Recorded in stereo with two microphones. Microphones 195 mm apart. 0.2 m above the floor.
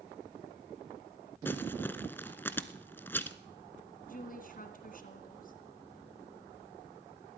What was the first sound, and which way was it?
Crumpling, 10° left (ahead or behind).